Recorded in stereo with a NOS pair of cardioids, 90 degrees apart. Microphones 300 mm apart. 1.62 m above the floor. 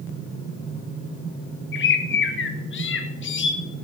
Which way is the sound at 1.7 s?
40° left.